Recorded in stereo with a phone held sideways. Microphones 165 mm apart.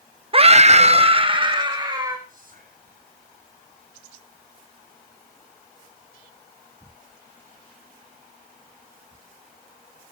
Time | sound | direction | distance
0.3 | a scream | 35° right (ahead or behind) | 0.6 m
2.3 | whispering | 60° right (ahead or behind) | 7 m